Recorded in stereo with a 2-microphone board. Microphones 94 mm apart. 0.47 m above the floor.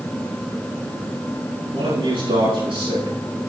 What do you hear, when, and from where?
1.7 s a man speaking: 65° right (ahead or behind), 5.5 m